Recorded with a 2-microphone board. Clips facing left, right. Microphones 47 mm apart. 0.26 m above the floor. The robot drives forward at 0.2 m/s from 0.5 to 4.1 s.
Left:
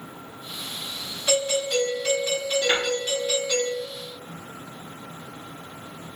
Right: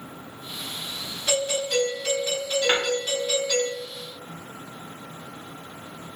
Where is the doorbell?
10° left (ahead or behind), 1.8 m.